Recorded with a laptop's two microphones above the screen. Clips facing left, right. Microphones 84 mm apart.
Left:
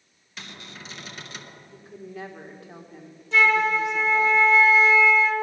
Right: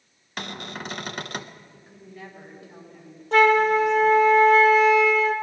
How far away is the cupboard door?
About 0.8 m.